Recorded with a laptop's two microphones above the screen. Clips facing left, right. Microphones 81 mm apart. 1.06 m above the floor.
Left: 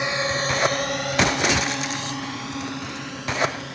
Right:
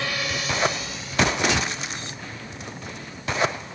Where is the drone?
20° left (ahead or behind); by 3.8 s 75° left (ahead or behind).